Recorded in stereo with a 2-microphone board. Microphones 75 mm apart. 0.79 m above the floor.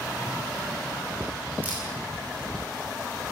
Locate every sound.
1.6 s a camera shutter: 20° right (ahead or behind), 8.5 m